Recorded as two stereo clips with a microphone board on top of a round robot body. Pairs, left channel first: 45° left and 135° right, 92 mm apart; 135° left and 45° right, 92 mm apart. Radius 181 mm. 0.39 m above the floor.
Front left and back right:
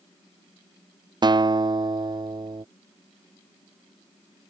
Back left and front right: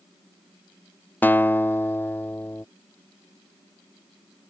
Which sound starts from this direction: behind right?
A guitar, at 1.2 s.